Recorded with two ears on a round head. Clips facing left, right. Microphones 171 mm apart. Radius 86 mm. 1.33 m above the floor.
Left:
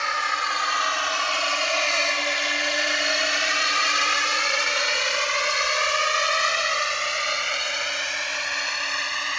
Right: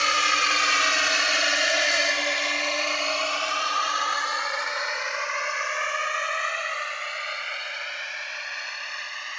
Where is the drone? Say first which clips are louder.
Right 1 dB; 45° right (ahead or behind); by 9.4 s 65° left (ahead or behind).